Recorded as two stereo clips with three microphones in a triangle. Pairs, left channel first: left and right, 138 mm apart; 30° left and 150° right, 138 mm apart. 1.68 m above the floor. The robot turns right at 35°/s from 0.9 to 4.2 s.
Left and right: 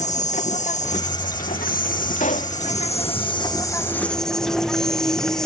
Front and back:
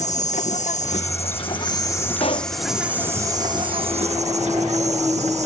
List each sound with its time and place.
0.0 s an insect: 60° left; by 5.5 s 175° left
2.2 s a pop: 70° left; by 2.6 s 85° left